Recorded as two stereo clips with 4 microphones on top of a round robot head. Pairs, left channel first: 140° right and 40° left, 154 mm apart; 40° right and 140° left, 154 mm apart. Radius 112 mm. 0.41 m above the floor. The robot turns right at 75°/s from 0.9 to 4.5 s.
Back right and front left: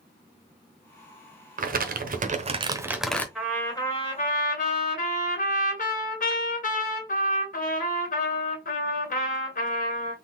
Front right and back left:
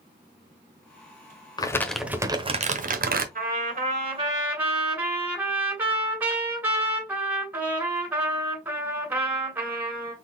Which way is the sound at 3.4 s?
130° left.